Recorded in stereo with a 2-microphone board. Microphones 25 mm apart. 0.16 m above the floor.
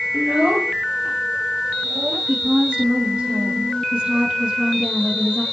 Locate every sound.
0.1 s a child speaking: 50° right (ahead or behind), 1.5 m; by 2.2 s 60° right (ahead or behind), 4.5 m
2.3 s a woman speaking: 40° right (ahead or behind), 4.5 m